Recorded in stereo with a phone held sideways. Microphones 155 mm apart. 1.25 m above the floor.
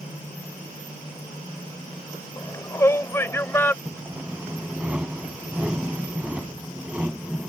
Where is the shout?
20° left (ahead or behind); by 3.8 s 15° left (ahead or behind).